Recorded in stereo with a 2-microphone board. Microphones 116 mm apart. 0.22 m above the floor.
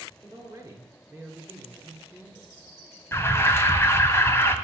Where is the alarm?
25° left (ahead or behind), 1.5 m.